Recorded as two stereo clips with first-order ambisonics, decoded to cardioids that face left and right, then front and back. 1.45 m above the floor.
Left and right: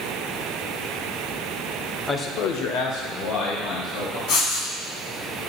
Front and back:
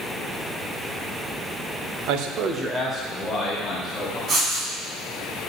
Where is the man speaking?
170° left, 0.8 m; by 4.2 s 65° left, 3 m.